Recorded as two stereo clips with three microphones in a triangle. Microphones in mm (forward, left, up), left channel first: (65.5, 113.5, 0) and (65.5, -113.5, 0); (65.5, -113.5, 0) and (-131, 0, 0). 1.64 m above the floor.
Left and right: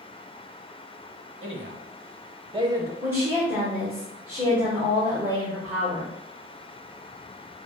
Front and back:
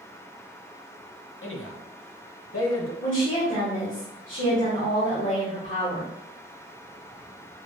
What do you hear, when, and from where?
1.4 s a man speaking: 60° right, 1.0 m; by 2.9 s 10° right, 1.1 m
3.0 s a woman speaking: 10° right, 1.2 m